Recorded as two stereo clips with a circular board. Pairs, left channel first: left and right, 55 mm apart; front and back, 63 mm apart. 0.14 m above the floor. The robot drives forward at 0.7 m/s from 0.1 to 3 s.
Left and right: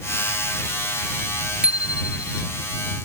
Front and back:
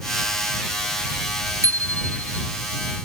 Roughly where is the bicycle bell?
Behind.